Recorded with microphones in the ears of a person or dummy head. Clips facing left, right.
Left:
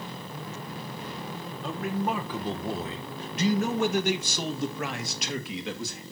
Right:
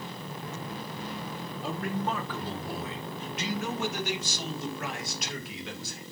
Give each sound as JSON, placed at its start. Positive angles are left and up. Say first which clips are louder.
{"t": 1.6, "sound": "a man speaking", "louder": "left 2 dB", "side_deg": 5, "distance_m": 1.2}